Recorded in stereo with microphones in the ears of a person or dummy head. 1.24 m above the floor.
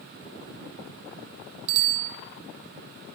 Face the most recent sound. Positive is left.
turn(degrees=-80)